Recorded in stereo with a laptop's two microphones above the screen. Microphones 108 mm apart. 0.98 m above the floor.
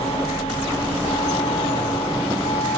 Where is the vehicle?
85° left; by 2.8 s 75° left (ahead or behind).